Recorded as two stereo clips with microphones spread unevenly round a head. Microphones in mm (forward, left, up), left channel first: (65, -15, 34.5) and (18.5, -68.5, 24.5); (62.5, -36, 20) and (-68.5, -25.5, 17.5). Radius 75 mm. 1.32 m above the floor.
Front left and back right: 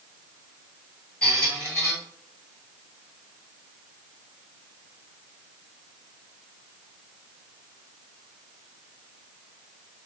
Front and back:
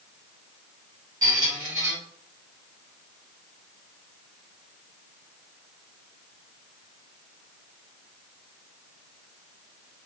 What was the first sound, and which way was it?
A squeak, 120° left.